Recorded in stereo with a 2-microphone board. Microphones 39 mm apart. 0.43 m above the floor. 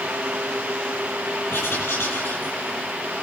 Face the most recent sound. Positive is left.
turn(degrees=80)